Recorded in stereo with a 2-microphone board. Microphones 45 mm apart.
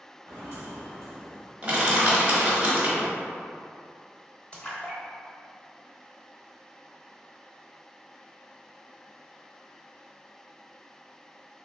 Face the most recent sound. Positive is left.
turn(degrees=25)  # may be behind; listen again after turning